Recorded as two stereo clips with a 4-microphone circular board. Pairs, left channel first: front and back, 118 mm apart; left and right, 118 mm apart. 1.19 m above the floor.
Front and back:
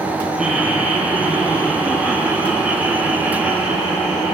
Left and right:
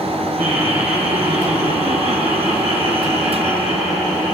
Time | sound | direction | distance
0.4 | laughter | 95° right | 6.5 m